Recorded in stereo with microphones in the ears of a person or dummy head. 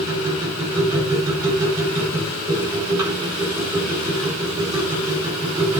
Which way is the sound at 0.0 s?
15° right (ahead or behind).